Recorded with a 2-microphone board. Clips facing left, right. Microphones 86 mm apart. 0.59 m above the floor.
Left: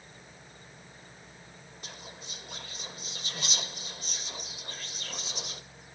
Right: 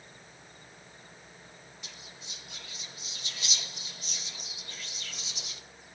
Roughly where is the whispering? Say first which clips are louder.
Left 4 dB; left.